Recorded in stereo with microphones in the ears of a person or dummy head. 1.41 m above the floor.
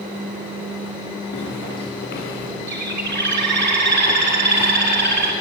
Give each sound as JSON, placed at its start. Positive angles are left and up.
{"t": 1.3, "sound": "footsteps", "side_deg": 65, "distance_m": 6.5}
{"t": 2.7, "sound": "a bird", "side_deg": -60, "distance_m": 3.0}